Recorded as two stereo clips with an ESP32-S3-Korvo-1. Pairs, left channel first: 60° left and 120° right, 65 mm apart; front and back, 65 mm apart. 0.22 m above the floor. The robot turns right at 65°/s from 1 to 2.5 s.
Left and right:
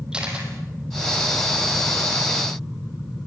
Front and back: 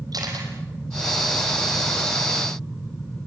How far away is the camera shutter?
About 5.5 m.